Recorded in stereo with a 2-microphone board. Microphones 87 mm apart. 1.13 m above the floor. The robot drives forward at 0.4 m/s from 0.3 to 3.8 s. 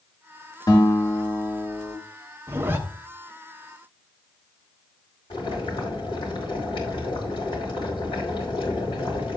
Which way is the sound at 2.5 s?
30° right (ahead or behind).